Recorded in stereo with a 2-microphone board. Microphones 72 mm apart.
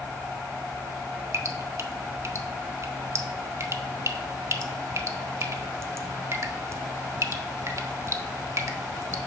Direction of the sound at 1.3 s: 50° right (ahead or behind).